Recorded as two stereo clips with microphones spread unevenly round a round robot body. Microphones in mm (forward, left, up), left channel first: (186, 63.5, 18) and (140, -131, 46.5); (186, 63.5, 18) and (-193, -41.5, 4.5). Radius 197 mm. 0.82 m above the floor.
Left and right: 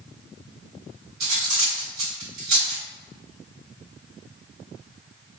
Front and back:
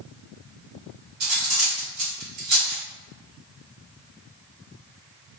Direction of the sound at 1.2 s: 105° right.